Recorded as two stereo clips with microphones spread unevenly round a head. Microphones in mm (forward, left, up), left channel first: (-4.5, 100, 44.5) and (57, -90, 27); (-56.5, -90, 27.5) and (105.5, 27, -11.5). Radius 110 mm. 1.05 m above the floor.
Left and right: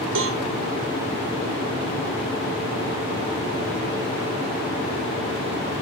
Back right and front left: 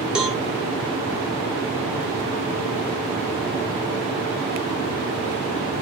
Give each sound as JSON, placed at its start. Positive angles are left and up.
{"t": 0.1, "sound": "a cowbell", "azimuth_deg": -50, "distance_m": 2.5}